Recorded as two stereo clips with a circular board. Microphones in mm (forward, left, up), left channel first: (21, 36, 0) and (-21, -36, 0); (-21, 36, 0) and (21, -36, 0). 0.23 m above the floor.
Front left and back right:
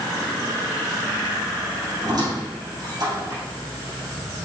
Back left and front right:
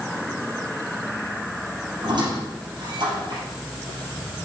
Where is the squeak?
85° right, 3 m.